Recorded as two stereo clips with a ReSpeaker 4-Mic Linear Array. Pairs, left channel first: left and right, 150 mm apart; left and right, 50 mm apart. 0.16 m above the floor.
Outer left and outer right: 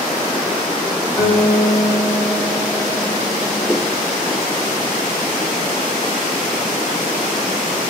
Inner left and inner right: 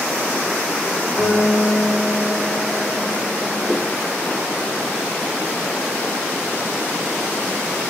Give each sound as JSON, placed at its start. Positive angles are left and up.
{"t": 1.2, "sound": "a guitar", "side_deg": 5, "distance_m": 4.5}
{"t": 3.7, "sound": "a whoosh", "side_deg": 5, "distance_m": 2.0}